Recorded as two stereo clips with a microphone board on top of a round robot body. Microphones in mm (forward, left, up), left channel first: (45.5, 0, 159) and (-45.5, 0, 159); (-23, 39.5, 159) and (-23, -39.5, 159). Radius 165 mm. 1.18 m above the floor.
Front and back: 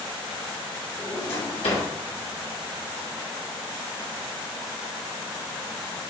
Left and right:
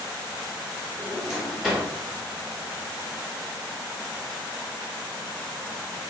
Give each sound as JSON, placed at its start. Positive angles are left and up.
{"t": 1.0, "sound": "a drawer", "azimuth_deg": -10, "distance_m": 1.2}